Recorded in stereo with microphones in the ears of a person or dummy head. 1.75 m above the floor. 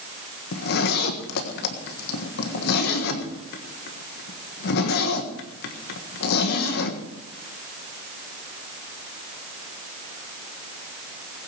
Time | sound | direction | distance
0.5 | a zipper | 60° left (ahead or behind) | 1.4 m